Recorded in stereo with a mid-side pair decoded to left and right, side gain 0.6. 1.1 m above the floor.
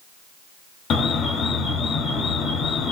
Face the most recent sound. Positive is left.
turn(degrees=50)